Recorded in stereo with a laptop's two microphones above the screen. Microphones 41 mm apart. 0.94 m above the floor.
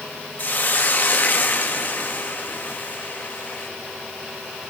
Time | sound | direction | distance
0.4 | a hiss | 45° left (ahead or behind) | 1.7 m